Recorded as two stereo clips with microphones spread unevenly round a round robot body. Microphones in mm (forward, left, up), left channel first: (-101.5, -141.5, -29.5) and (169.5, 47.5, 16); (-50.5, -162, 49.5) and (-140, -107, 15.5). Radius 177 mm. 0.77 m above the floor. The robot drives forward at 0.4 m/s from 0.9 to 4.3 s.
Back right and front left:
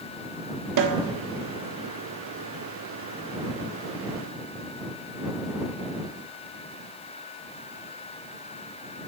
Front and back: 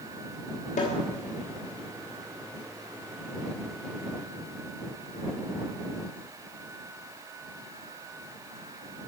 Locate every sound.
0.8 s a snare drum: straight ahead, 1.1 m